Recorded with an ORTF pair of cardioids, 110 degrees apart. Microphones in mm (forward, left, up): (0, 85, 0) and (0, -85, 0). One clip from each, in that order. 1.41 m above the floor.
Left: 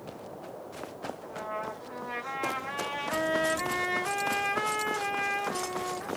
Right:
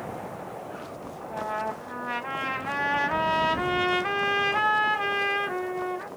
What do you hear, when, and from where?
1.2 s a trumpet: 70° right, 2.5 m